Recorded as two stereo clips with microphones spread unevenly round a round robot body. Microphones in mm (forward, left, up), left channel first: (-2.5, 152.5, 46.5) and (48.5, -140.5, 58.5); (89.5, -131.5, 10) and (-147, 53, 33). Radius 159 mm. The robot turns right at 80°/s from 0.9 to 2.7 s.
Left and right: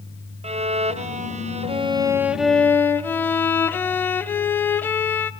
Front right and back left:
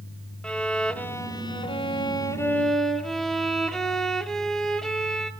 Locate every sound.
0.4 s a violin: 105° right, 0.6 m; by 5.3 s 35° left, 0.6 m